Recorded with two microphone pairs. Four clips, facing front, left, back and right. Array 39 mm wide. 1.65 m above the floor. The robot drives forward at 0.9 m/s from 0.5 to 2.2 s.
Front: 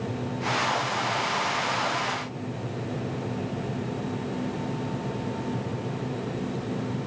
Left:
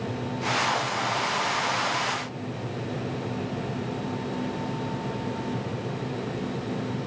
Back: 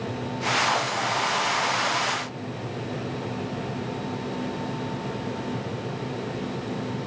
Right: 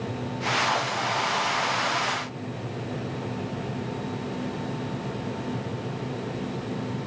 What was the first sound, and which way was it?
Only background noise.